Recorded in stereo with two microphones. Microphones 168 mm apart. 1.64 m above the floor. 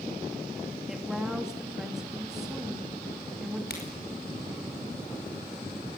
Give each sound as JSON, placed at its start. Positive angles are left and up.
{"t": 0.9, "sound": "a woman speaking", "side_deg": -5, "distance_m": 3.5}
{"t": 3.7, "sound": "a crack", "side_deg": 75, "distance_m": 5.0}